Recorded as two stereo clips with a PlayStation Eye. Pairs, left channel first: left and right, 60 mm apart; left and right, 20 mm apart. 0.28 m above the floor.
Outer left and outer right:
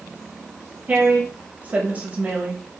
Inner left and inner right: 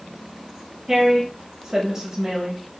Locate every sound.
0.9 s a woman speaking: 25° right (ahead or behind), 0.9 m